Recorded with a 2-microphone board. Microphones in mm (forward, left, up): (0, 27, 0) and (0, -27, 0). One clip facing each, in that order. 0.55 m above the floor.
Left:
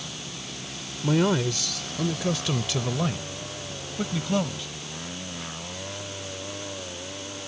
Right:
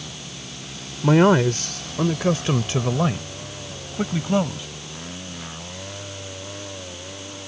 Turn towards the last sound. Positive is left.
turn(degrees=-20)  # may be behind; listen again after turning